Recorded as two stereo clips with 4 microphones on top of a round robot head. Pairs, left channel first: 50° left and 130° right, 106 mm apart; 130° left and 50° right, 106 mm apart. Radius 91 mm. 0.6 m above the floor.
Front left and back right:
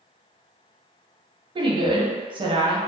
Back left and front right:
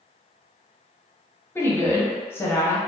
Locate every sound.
1.6 s a woman speaking: 165° right, 0.8 m